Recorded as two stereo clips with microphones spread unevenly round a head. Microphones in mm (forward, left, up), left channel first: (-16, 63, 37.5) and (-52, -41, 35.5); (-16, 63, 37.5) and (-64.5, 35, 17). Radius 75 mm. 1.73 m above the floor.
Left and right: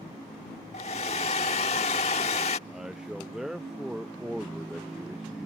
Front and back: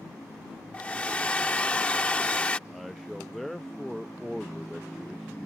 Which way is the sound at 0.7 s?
55° left.